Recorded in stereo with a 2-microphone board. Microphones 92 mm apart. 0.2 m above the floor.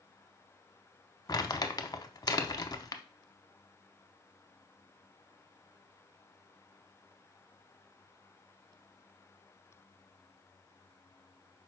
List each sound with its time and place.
1.3 s crumpling: 40° left (ahead or behind), 0.5 m